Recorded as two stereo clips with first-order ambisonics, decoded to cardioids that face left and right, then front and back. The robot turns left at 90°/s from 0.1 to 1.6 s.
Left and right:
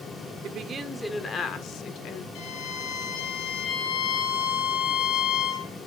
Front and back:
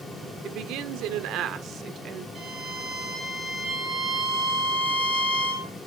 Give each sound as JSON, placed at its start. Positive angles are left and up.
{"t": 0.4, "sound": "a woman speaking", "azimuth_deg": -130, "distance_m": 1.4}
{"t": 2.4, "sound": "a violin", "azimuth_deg": 110, "distance_m": 4.0}